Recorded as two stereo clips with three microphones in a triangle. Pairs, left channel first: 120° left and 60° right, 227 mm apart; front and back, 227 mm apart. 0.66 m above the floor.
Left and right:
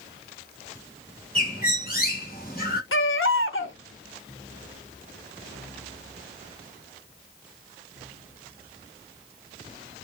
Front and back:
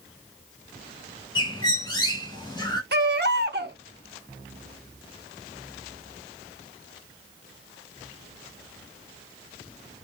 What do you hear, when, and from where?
1.4 s a bird: 70° left, 1.5 m
2.9 s a baby crying: 140° left, 0.7 m